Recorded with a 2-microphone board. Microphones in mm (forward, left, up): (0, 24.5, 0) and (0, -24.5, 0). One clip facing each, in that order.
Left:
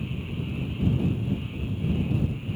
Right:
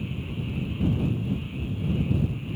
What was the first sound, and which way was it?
Only background noise.